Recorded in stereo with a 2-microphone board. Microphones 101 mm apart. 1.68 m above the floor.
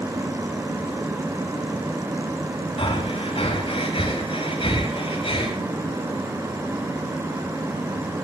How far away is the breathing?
About 7 m.